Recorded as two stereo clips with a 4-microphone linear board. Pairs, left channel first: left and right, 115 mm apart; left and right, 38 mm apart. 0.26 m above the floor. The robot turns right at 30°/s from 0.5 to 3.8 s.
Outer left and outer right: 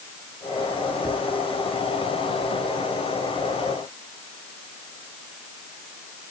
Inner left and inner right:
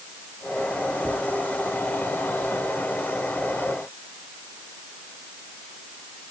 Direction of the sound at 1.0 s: 15° left (ahead or behind).